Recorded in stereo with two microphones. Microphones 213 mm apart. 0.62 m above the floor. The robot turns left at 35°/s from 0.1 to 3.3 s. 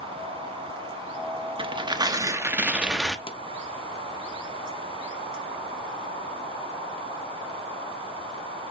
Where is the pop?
25° left (ahead or behind), 0.6 m.